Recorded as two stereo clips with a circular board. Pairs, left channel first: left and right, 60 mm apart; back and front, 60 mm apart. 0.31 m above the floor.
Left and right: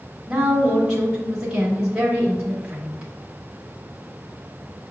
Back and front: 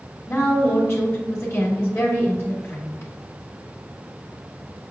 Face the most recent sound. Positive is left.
turn(degrees=-165)